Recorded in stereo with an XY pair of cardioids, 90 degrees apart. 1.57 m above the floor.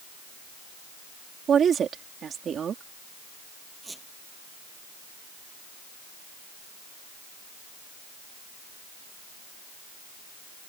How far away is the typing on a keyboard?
I don't hear typing on a keyboard.